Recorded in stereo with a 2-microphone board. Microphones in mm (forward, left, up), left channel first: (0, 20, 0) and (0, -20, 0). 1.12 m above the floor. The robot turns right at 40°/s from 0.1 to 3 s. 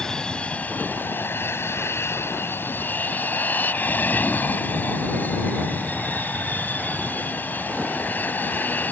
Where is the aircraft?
15° left; by 8.9 s 130° left.